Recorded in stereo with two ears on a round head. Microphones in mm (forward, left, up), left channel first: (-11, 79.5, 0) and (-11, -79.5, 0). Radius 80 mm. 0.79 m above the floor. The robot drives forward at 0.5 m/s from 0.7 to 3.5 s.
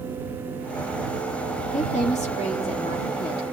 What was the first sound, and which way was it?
A woman speaking, 50° left (ahead or behind).